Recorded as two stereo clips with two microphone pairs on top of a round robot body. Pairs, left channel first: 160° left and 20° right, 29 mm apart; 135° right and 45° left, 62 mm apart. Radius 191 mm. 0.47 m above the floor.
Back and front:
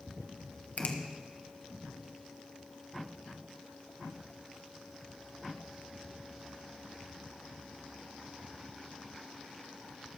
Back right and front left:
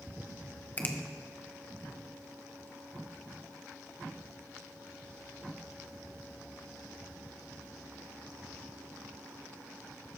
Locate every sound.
0.8 s a finger snap: 175° left, 1.7 m